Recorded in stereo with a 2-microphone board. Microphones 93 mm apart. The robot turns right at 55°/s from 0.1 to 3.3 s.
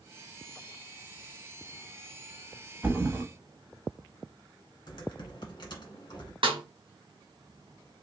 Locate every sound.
2.8 s a thud: 10° right (ahead or behind), 0.9 m; by 3.2 s 25° right (ahead or behind), 0.9 m
4.9 s typing on a keyboard: 50° left (ahead or behind), 1.3 m
6.4 s a snare drum: 65° right (ahead or behind), 1.2 m